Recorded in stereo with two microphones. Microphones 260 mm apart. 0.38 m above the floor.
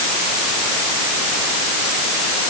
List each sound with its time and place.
Only background noise.